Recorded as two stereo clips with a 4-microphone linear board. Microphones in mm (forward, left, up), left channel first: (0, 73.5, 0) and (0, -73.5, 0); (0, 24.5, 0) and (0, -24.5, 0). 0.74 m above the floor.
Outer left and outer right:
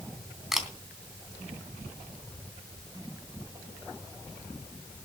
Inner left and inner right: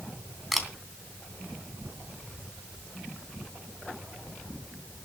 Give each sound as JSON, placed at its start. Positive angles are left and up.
{"t": 0.5, "sound": "a camera shutter", "side_deg": 0, "distance_m": 3.0}